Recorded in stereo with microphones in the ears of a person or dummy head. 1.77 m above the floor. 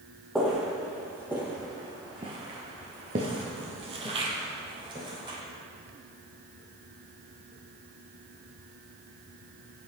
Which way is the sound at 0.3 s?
Centre (ahead or behind).